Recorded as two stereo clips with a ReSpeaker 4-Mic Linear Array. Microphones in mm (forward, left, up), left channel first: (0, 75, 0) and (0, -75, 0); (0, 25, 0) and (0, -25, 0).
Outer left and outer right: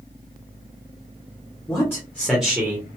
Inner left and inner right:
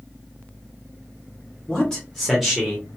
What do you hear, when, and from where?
1.7 s a man speaking: 20° left (ahead or behind), 1.0 m; by 2.9 s 15° right (ahead or behind), 1.0 m